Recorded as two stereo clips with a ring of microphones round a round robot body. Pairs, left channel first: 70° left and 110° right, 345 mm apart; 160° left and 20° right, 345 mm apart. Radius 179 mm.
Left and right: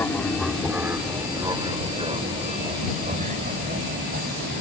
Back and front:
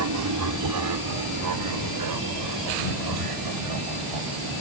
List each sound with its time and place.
0.0 s an aircraft: 15° right; by 4.6 s 50° right